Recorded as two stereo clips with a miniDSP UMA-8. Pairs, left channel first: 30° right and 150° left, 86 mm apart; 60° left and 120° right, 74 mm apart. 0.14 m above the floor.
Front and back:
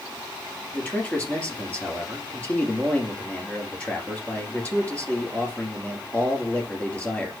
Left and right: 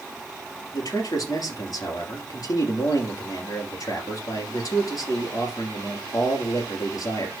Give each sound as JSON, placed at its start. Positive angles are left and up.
{"t": 0.7, "sound": "a man speaking", "azimuth_deg": 45, "distance_m": 3.0}